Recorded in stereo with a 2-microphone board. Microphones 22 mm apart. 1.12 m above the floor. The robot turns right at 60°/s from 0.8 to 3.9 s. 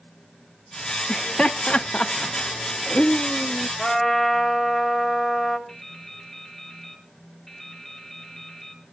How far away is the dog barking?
I don't hear a dog barking.